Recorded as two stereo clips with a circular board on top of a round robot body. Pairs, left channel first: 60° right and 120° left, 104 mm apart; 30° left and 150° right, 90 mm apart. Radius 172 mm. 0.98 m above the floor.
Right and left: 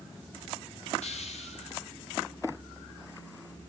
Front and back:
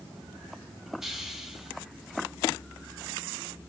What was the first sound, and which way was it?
A hiss, 65° right.